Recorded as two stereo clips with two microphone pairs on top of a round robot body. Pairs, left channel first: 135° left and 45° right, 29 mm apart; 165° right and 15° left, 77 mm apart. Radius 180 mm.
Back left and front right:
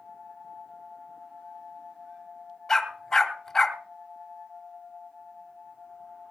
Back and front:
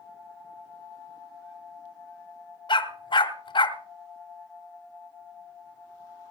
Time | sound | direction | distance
2.7 | a dog barking | 150° right | 3 m